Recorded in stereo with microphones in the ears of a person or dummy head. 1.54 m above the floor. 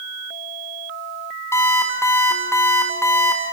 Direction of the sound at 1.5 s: 10° left (ahead or behind).